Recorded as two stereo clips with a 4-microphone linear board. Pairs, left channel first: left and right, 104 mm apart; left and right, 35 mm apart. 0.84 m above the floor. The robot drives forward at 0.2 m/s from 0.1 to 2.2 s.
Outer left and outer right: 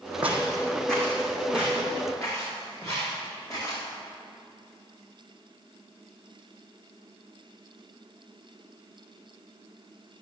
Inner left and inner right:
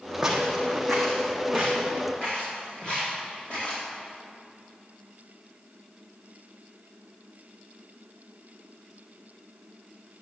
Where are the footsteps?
15° right (ahead or behind), 2 m; by 3.8 s 35° left (ahead or behind), 7 m.